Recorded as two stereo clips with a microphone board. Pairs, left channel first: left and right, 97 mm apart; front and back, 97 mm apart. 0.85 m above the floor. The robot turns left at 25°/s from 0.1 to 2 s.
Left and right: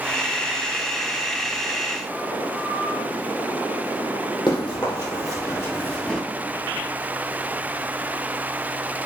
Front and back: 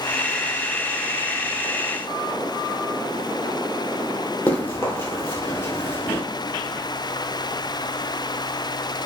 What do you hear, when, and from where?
4.5 s running footsteps: 60° left, 1.5 m; by 6.2 s 15° left, 0.9 m